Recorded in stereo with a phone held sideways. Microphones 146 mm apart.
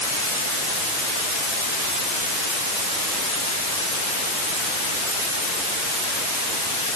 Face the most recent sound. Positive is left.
No sound to turn to.